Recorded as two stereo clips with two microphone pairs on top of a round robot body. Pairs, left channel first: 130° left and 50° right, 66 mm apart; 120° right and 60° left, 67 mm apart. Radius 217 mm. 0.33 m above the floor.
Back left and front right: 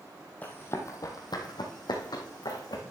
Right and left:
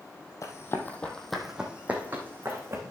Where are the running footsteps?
160° right, 1.4 m; by 2.8 s 110° left, 3 m.